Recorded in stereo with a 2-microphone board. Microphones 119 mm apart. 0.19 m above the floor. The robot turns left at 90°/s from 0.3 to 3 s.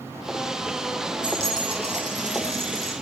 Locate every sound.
1.2 s a dropped coin: 5° right, 5.5 m; by 2.9 s 160° right, 5.5 m